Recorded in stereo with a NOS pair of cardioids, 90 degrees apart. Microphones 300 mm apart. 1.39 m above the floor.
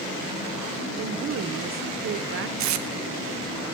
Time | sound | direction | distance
1.0 | a woman speaking | 45° right | 0.7 m
2.6 | tape being pulled | 70° right | 0.8 m